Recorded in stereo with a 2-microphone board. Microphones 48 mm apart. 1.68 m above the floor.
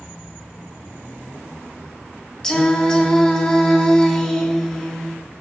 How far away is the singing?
About 1.8 m.